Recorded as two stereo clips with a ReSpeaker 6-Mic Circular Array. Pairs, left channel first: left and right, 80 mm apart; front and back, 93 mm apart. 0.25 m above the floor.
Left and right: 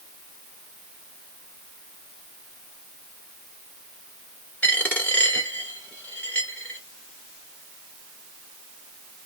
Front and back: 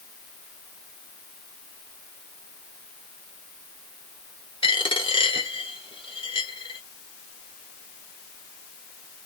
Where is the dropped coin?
20° left, 1.4 m.